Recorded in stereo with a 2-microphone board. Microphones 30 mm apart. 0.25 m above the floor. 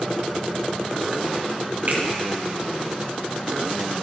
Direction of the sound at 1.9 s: 60° right (ahead or behind).